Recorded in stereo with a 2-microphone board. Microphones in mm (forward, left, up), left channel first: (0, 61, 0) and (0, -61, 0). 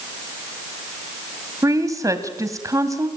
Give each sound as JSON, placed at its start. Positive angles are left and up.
{"t": 1.6, "sound": "a woman speaking", "side_deg": -30, "distance_m": 2.0}